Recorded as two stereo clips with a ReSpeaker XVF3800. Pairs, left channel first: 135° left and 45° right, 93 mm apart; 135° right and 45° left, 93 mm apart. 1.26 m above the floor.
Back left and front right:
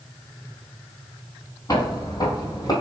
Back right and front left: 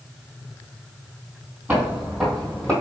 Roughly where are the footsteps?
Behind left.